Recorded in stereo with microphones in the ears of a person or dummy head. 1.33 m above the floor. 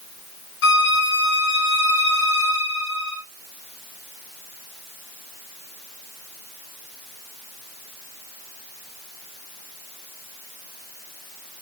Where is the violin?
70° left (ahead or behind), 3.5 m.